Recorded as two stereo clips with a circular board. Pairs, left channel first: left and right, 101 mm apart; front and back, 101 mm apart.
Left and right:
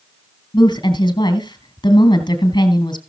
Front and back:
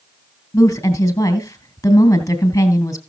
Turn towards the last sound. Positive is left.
turn(degrees=60)